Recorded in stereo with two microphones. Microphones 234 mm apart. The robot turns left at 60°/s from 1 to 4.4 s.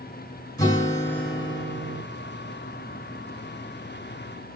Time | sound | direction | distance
0.6 | a guitar | 15° left | 1.7 m